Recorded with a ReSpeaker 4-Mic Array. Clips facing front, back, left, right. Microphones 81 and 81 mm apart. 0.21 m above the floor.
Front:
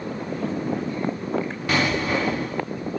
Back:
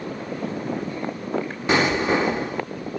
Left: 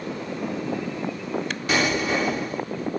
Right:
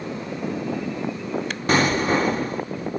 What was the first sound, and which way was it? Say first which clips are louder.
An explosion: back 3 dB, right 4 dB; 120° right.